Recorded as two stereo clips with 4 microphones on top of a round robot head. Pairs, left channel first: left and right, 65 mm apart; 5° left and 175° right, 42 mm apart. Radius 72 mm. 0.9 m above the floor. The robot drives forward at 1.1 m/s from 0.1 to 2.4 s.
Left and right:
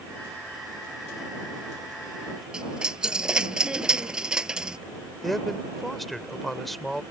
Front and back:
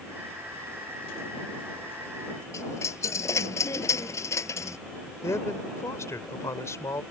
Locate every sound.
2.5 s a dropped coin: 10° right
5.2 s a man speaking: straight ahead